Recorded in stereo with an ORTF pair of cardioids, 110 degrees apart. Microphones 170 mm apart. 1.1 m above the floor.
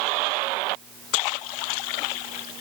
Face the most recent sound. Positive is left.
No sound to turn to.